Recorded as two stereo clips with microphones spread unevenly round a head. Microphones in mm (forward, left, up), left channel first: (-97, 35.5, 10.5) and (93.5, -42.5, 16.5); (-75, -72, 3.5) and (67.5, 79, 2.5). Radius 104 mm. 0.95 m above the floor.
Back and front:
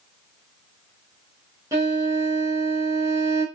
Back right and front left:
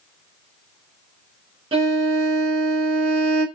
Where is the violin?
30° left, 0.7 m.